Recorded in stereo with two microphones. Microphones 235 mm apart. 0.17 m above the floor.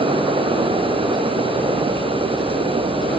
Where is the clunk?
I don't hear a clunk.